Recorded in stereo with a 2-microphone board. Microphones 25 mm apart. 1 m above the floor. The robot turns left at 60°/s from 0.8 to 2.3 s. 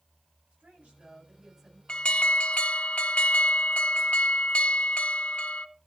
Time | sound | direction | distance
0.5 | a woman speaking | 110° right | 8.5 m
1.9 | an alarm | 40° left (ahead or behind) | 1.0 m